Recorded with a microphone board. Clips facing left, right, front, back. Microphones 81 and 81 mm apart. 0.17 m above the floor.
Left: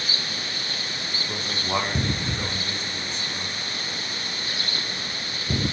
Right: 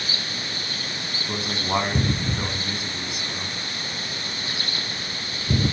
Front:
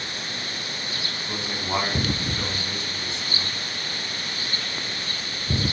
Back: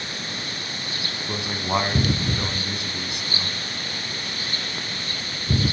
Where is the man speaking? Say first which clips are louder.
Right 3 dB, back 3 dB; 145° right, 1.0 m.